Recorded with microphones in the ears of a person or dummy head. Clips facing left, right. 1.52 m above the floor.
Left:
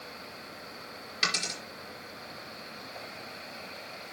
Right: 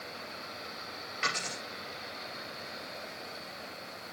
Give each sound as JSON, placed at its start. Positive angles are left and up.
{"t": 1.2, "sound": "a dropped coin", "side_deg": 55, "distance_m": 4.5}